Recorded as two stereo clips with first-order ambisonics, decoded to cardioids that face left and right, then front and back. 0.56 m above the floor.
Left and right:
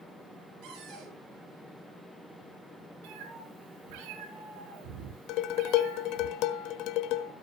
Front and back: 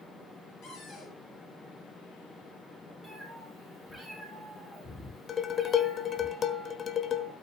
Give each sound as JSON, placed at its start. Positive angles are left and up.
{"t": 0.6, "sound": "a cupboard door", "azimuth_deg": -55, "distance_m": 9.0}
{"t": 3.0, "sound": "a cat meowing", "azimuth_deg": -85, "distance_m": 6.0}
{"t": 5.3, "sound": "dishes clattering", "azimuth_deg": 60, "distance_m": 1.2}